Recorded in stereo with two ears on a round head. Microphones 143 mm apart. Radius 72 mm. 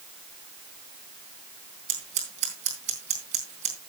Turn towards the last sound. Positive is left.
turn(degrees=-45)  # may be behind; listen again after turning